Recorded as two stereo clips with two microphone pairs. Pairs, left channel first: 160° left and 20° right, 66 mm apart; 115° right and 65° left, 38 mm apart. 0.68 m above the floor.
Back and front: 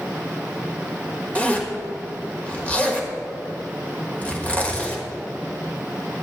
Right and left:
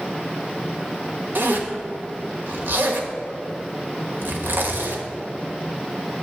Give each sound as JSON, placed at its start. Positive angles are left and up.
{"t": 1.4, "sound": "a zipper", "azimuth_deg": 90, "distance_m": 1.2}